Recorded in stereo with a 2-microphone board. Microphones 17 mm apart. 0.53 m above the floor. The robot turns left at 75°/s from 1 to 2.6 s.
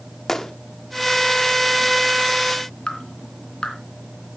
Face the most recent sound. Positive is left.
turn(degrees=80)